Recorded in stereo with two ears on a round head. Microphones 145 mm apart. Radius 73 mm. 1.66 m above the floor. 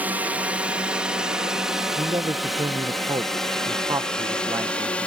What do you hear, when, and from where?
0.0 s a drone: 10° right (ahead or behind); by 5.1 s 10° left (ahead or behind)
2.0 s a man speaking: 20° right (ahead or behind)